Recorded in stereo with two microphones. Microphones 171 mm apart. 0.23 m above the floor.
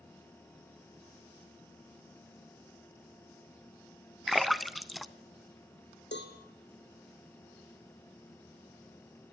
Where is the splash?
Centre (ahead or behind), 0.8 m.